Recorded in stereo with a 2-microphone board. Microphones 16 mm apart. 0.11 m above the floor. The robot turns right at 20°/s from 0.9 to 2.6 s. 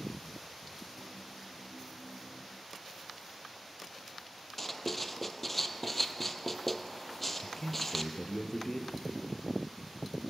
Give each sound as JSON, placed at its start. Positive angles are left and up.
{"t": 4.6, "sound": "writing", "side_deg": 15, "distance_m": 0.7}
{"t": 7.4, "sound": "a man speaking", "side_deg": 50, "distance_m": 1.7}